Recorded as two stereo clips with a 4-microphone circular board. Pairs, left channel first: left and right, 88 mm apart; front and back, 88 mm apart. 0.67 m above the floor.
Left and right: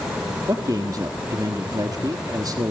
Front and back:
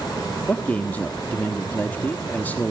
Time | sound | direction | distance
0.5 | a man speaking | 65° right | 1.2 m